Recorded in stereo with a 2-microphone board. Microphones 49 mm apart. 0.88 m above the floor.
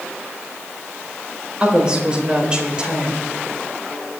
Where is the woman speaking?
20° right (ahead or behind), 3.5 m.